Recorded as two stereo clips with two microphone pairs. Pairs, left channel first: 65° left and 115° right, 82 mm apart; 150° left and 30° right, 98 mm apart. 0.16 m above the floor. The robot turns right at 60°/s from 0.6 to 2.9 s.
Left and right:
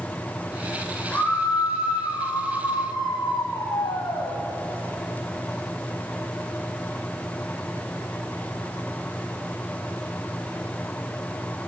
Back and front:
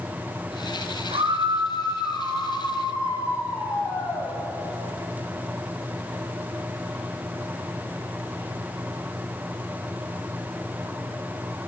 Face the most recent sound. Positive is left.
turn(degrees=95)